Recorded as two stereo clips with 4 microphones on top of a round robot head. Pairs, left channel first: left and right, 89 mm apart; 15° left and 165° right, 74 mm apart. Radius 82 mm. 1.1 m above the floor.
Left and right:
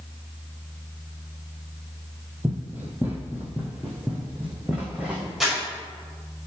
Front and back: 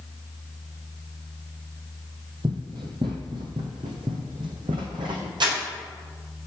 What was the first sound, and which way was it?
Running footsteps, 165° right.